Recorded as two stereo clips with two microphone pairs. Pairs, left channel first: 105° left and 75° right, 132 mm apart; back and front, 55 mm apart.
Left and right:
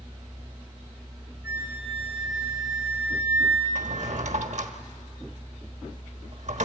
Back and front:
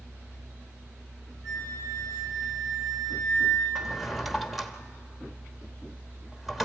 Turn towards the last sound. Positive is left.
turn(degrees=-90)